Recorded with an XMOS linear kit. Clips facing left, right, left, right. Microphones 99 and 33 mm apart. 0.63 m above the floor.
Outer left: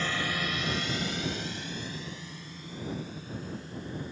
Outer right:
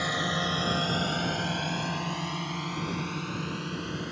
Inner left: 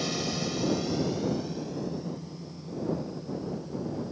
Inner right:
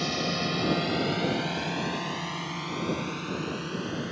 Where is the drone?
15° right (ahead or behind); by 4.1 s 80° right.